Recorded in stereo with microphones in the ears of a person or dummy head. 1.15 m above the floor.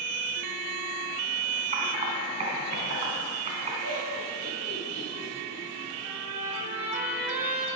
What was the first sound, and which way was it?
Typing on a keyboard, 35° right (ahead or behind).